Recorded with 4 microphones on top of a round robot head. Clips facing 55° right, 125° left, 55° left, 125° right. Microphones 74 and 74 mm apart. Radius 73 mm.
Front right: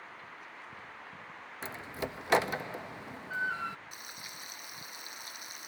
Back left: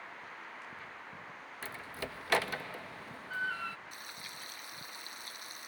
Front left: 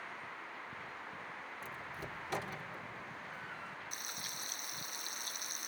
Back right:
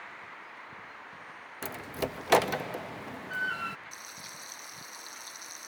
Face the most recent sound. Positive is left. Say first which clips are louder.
# even, even
turn(degrees=15)